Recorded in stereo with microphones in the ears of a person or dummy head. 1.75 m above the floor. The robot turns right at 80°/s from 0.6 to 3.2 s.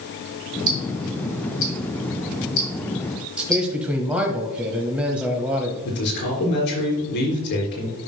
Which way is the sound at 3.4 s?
5° right (ahead or behind).